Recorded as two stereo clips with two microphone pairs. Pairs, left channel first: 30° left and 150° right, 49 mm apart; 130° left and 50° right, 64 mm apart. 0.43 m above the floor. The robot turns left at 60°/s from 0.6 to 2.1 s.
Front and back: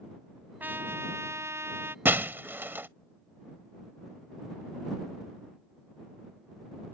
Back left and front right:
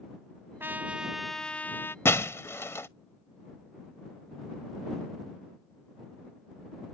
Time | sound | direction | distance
0.6 | a trumpet | 100° right | ?
2.0 | breaking glass | 175° left | ?